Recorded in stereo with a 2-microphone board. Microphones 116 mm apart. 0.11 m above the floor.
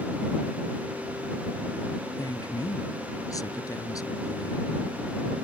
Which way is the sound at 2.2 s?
30° left (ahead or behind).